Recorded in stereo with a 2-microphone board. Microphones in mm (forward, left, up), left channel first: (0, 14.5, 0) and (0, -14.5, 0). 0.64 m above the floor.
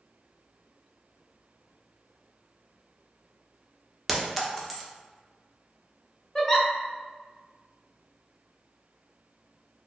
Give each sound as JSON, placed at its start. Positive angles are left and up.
{"t": 4.1, "sound": "a clink", "side_deg": 0, "distance_m": 0.6}
{"t": 6.3, "sound": "a giggle", "side_deg": 15, "distance_m": 0.6}